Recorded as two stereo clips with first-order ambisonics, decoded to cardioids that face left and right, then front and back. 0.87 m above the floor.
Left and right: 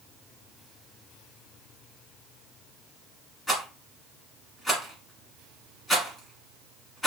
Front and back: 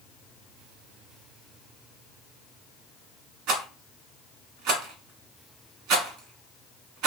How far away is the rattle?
About 1.4 m.